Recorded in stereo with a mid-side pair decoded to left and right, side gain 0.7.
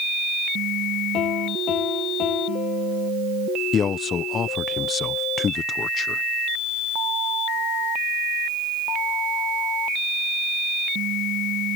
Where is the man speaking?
35° left.